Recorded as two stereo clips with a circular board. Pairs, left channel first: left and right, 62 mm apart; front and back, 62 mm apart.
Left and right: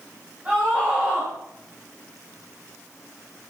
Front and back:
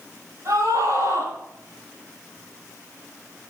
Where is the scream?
155° right, 10 m.